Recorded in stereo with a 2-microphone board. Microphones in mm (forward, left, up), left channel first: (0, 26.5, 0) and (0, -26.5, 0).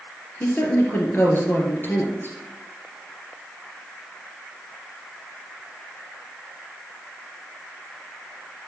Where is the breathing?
No breathing in this recording.